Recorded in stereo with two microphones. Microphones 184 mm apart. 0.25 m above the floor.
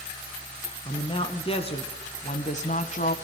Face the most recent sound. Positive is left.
turn(degrees=45)  # may be behind; listen again after turning